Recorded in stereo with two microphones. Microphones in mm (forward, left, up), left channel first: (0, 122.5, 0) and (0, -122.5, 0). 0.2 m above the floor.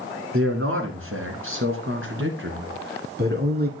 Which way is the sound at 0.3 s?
60° right (ahead or behind).